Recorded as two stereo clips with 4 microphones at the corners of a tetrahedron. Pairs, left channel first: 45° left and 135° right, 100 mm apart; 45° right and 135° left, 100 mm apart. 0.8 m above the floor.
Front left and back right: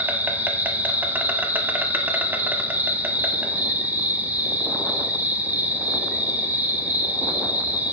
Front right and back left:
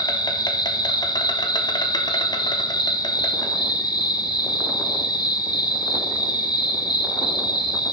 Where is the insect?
70° right, 0.9 m.